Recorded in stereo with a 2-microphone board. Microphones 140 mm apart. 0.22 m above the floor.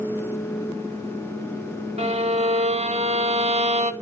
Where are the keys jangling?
No keys jangling in this recording.